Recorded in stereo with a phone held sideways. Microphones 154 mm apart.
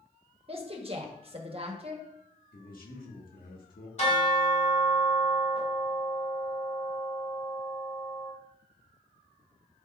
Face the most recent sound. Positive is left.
turn(degrees=45)  # may be behind; listen again after turning